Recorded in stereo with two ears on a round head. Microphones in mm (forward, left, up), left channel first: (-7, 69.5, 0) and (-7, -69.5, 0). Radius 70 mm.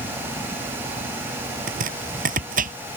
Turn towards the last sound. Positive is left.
turn(degrees=-55)  # may be behind; listen again after turning